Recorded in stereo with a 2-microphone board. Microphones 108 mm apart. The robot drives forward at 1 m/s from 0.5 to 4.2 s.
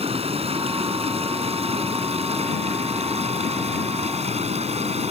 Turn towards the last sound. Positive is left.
turn(degrees=-80)